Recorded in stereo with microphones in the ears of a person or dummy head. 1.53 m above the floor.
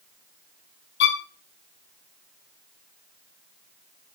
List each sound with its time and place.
1.0 s a violin: 75° left (ahead or behind), 0.8 m